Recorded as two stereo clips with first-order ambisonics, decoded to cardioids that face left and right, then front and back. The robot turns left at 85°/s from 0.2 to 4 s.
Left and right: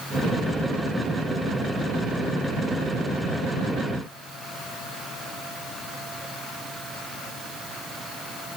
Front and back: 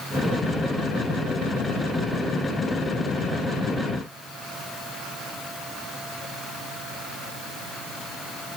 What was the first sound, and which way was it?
Only background noise.